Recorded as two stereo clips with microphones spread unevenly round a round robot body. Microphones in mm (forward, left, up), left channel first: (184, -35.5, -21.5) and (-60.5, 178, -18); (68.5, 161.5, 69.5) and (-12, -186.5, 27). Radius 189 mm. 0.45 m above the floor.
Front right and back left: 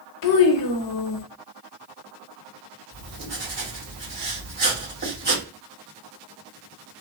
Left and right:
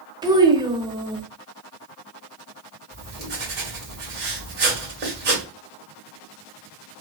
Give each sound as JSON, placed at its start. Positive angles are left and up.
{"t": 0.2, "sound": "a child speaking", "azimuth_deg": -30, "distance_m": 0.8}
{"t": 2.9, "sound": "writing", "azimuth_deg": -160, "distance_m": 1.8}